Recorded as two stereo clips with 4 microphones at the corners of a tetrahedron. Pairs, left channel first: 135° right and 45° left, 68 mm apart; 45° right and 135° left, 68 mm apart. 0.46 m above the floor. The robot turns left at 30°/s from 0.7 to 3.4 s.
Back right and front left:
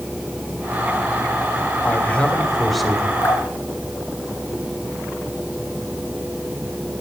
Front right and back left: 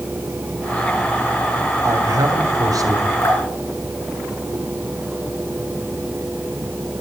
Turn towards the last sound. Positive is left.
turn(degrees=-95)